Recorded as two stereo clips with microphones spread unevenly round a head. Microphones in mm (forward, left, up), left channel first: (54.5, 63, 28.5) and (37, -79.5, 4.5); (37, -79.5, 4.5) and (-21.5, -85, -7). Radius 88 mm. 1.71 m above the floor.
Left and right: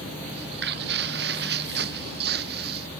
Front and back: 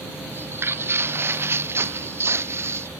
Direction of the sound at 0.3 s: 125° right.